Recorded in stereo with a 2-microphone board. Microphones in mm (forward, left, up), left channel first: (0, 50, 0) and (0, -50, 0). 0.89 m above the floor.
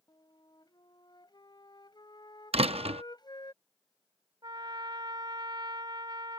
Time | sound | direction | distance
0.1 | a flute | 45° left (ahead or behind) | ?
2.5 | a door slam | 80° right | ?
4.4 | a trumpet | 50° right (ahead or behind) | ?